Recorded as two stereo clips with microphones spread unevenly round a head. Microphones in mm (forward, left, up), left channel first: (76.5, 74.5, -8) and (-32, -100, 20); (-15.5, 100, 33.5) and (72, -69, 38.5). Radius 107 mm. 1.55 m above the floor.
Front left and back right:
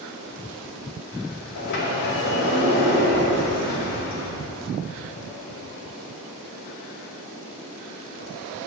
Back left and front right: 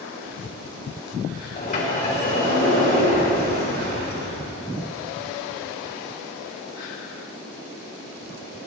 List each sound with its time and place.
1.6 s a sliding door: 70° left, 3.5 m